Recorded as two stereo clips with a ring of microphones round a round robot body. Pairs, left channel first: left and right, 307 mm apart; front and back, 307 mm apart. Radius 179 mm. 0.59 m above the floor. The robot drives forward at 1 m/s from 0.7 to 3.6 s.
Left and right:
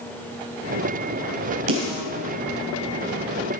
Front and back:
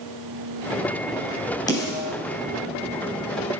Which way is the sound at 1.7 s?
75° right.